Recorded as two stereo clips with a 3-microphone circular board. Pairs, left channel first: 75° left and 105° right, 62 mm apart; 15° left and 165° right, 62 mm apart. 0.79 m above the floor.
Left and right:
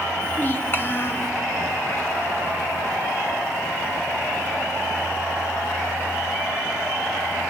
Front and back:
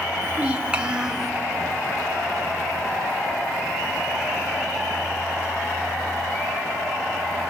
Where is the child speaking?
135° left, 1.9 m; by 1.3 s 115° left, 1.6 m.